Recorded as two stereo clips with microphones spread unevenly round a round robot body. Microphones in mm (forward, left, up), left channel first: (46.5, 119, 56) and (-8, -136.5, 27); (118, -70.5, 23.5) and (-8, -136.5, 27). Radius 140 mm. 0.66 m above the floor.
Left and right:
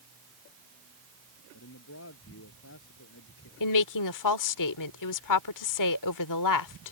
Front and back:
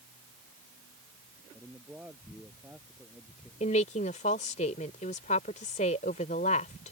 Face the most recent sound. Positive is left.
turn(degrees=85)